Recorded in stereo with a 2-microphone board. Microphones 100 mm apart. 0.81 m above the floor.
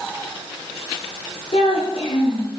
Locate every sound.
1.5 s a child speaking: 75° left (ahead or behind), 7 m